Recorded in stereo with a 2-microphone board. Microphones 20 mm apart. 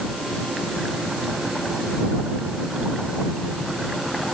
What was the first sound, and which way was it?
Only background noise.